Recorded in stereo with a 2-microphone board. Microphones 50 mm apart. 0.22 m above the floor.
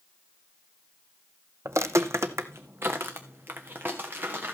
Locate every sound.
1.6 s footsteps: 80° right, 0.6 m; by 4.5 s 40° right (ahead or behind), 2.5 m